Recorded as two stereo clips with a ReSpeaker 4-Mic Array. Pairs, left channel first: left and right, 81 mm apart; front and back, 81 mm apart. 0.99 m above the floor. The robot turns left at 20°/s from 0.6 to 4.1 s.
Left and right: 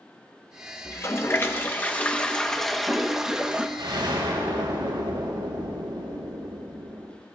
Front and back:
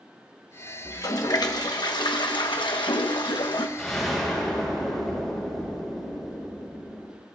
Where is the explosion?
80° right, 4.5 m; by 7.2 s 85° right, 4.5 m.